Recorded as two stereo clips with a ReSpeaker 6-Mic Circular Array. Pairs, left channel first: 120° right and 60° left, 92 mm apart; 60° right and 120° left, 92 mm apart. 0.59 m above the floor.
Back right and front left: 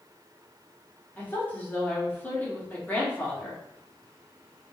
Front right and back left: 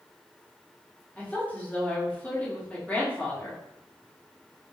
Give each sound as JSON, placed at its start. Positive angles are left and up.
{"t": 1.2, "sound": "a woman speaking", "azimuth_deg": -100, "distance_m": 1.1}